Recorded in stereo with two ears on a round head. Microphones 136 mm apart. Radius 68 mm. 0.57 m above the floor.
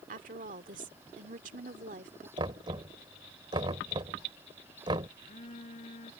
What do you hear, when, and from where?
0.1 s a woman speaking: 60° right (ahead or behind)
2.4 s knocking: 30° right (ahead or behind)
5.2 s a phone buzzing: 45° left (ahead or behind)